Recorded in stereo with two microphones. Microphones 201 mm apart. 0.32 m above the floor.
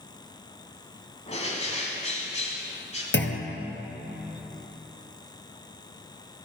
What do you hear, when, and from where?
1.3 s a bird: 35° left (ahead or behind), 1.7 m
3.1 s a clunk: 70° left (ahead or behind), 1.3 m